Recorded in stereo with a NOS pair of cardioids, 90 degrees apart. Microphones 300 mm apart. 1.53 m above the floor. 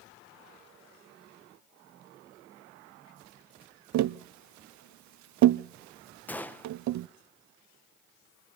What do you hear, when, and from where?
3.9 s tapping: 65° right, 0.6 m
6.3 s a gunshot: 5° left, 1.2 m